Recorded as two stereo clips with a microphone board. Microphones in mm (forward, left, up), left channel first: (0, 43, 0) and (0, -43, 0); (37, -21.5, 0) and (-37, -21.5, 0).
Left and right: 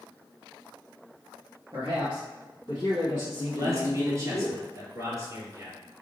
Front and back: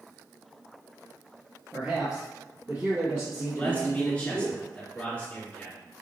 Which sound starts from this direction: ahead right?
A man speaking, at 3.5 s.